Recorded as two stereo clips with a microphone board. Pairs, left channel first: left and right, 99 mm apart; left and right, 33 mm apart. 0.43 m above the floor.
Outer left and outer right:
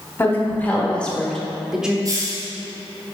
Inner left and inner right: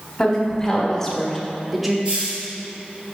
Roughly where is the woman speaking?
Left.